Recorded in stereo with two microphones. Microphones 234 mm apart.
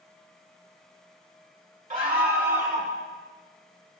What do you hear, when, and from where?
1.9 s a scream: 35° right (ahead or behind), 1.7 m; by 2.9 s 50° right (ahead or behind), 2.5 m